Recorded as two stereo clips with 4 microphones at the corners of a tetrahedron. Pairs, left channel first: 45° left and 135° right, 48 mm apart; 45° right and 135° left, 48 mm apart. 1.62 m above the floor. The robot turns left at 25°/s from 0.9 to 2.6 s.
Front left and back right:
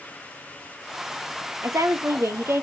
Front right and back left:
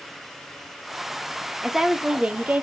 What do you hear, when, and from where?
1.6 s a woman speaking: 140° right, 0.8 m; by 2.6 s 165° right, 0.8 m